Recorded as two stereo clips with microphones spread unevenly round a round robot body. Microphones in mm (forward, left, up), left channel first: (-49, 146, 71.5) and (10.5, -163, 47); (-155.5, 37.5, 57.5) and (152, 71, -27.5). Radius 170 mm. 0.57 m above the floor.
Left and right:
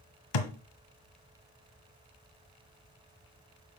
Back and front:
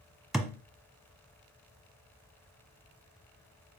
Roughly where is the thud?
Left.